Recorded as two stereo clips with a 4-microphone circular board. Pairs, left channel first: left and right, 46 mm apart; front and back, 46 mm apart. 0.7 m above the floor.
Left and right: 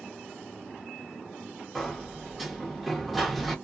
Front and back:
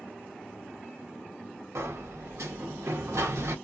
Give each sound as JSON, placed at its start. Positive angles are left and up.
{"t": 1.8, "sound": "a sliding door", "azimuth_deg": 180, "distance_m": 0.9}